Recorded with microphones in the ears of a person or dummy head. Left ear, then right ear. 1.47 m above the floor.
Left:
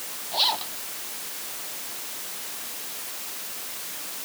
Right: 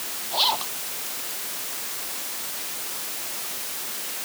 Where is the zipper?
10° left (ahead or behind).